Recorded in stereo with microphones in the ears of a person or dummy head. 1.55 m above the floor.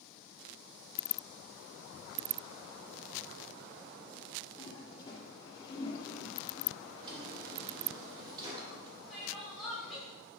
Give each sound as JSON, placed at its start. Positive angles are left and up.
{"t": 4.6, "sound": "a toilet flushing", "side_deg": 25, "distance_m": 2.0}
{"t": 7.0, "sound": "a drawer", "side_deg": -25, "distance_m": 2.0}
{"t": 9.1, "sound": "crying", "side_deg": 0, "distance_m": 4.0}